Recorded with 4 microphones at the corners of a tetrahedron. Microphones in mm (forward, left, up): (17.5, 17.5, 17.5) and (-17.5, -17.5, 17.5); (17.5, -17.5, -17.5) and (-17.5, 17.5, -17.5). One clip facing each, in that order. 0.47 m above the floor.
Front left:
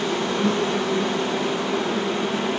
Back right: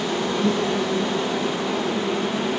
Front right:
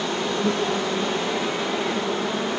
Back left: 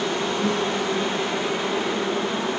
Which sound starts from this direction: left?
An insect, at 0.0 s.